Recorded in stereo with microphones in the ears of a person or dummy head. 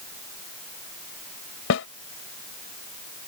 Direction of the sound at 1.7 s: 60° left (ahead or behind).